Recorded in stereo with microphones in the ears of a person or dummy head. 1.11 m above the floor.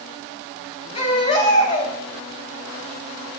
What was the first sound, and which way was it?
A baby crying, 35° left (ahead or behind).